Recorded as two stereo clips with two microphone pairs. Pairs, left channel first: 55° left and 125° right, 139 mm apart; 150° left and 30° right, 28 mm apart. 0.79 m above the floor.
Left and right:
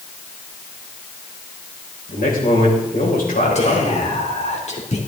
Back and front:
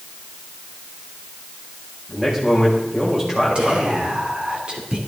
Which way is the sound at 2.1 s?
50° left.